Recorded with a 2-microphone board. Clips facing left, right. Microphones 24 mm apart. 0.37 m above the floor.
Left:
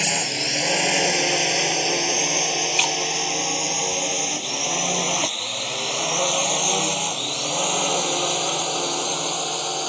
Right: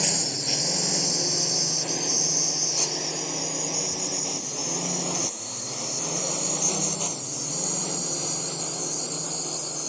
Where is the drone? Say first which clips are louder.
Left 4 dB; 70° left (ahead or behind); by 9.9 s 75° left (ahead or behind).